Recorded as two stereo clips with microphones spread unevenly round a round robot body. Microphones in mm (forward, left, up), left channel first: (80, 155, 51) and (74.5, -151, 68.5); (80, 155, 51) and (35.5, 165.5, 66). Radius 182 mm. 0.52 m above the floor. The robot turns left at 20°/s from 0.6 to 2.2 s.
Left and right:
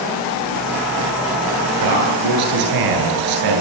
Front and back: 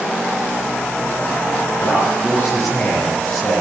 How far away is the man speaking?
About 10 m.